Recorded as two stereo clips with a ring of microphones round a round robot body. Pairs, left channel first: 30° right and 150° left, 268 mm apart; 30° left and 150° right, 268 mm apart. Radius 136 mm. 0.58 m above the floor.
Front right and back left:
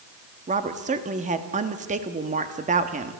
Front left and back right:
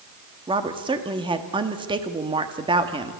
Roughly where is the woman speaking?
Behind.